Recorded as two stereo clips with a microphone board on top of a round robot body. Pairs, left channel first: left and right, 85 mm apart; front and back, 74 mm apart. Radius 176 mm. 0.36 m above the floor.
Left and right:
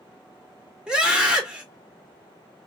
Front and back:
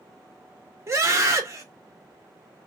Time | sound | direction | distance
0.9 | a scream | 165° right | 1.8 m